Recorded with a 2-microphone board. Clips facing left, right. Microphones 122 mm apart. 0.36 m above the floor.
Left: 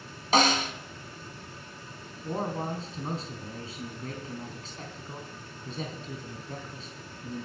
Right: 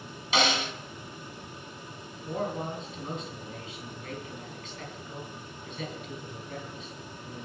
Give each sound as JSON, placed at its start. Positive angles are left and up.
{"t": 0.3, "sound": "a snare drum", "side_deg": 45, "distance_m": 1.8}
{"t": 2.2, "sound": "a man speaking", "side_deg": 35, "distance_m": 3.5}